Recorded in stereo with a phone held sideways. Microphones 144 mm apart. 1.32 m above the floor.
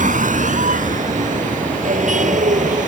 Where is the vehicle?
65° right (ahead or behind); by 2.9 s 60° right (ahead or behind).